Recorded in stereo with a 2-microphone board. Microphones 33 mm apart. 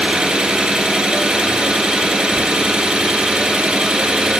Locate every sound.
0.0 s an engine running: 35° right (ahead or behind), 1.8 m